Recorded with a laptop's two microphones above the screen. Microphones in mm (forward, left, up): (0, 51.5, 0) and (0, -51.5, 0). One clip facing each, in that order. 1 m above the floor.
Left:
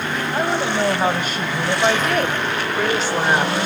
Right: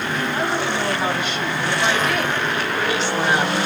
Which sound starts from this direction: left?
A woman speaking, at 0.3 s.